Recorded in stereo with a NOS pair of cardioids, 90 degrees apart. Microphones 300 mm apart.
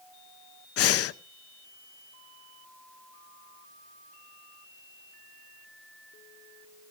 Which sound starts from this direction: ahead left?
Breathing, at 0.8 s.